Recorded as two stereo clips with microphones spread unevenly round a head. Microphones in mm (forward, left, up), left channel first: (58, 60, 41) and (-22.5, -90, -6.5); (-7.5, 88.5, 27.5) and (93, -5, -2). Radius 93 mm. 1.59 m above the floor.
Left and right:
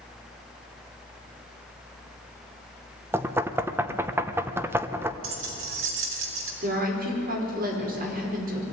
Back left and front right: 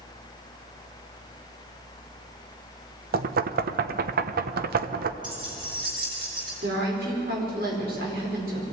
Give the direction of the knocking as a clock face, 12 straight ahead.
1 o'clock.